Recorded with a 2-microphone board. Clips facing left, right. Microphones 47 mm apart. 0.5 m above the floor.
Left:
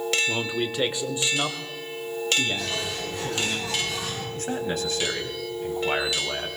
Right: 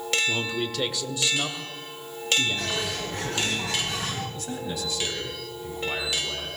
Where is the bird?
55° right (ahead or behind), 6.5 m.